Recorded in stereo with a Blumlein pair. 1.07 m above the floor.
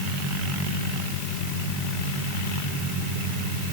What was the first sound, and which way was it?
Only background noise.